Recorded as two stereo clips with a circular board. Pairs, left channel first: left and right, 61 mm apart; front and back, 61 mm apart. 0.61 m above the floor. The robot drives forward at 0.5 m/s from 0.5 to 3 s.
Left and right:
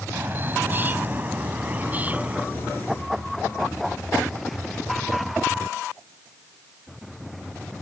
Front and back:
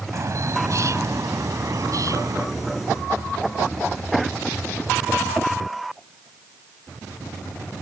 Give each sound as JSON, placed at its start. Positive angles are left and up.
{"t": 0.1, "sound": "a bird", "azimuth_deg": -145}